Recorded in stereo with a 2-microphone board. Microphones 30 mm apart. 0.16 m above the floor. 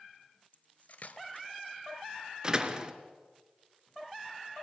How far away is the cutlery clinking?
About 1.4 m.